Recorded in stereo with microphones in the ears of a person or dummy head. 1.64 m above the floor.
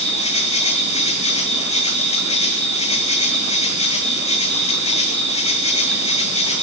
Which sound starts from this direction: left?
An insect, at 0.0 s.